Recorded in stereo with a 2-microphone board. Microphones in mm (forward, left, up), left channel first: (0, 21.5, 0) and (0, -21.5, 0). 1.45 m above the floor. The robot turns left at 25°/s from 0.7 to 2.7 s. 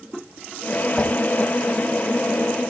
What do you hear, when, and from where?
1.0 s a whoosh: 10° left (ahead or behind), 1.1 m